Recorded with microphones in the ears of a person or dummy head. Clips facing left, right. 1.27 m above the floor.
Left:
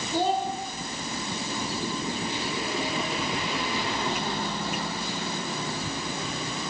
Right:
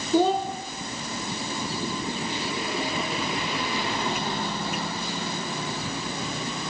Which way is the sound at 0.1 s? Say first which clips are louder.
Right 5 dB; 75° right (ahead or behind).